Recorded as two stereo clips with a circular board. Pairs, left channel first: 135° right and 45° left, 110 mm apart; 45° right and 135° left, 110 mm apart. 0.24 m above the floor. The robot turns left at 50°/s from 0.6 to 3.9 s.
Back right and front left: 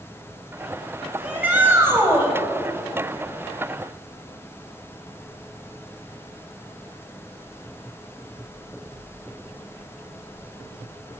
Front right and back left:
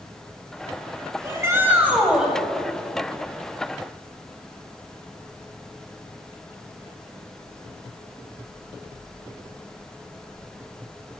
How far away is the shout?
About 1.1 m.